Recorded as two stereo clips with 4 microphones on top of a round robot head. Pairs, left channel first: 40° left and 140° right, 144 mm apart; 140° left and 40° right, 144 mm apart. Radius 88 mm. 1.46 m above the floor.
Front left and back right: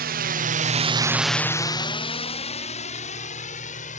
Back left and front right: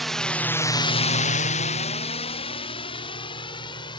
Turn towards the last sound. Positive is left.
turn(degrees=80)